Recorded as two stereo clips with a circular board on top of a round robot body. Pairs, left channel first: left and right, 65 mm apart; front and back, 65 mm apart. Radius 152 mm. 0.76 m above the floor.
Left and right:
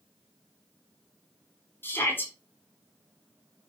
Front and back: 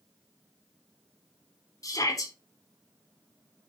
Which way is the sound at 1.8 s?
30° left.